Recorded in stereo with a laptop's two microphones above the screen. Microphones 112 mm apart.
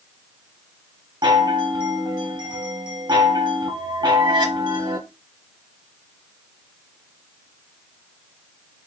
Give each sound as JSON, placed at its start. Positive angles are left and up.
{"t": 1.2, "sound": "a chime", "side_deg": -40, "distance_m": 1.0}